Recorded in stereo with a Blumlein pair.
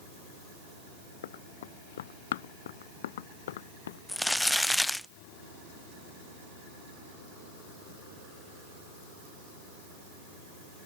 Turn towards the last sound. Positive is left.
turn(degrees=0)